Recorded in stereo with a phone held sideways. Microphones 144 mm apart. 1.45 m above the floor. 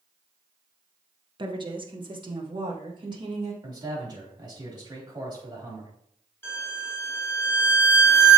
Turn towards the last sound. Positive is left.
turn(degrees=15)  # may be behind; listen again after turning